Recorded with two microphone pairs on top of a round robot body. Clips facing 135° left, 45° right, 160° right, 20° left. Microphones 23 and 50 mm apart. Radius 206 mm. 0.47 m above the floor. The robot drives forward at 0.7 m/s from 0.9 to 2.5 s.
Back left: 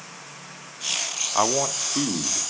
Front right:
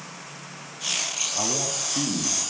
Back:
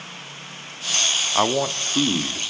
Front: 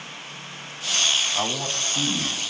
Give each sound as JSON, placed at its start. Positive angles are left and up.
{"t": 1.4, "sound": "a man speaking", "azimuth_deg": 150, "distance_m": 1.1}